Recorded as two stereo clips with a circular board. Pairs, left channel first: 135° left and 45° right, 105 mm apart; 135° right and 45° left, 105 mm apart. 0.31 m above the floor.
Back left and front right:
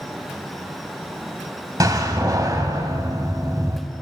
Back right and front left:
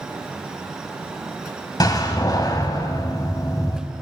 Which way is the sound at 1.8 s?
90° right.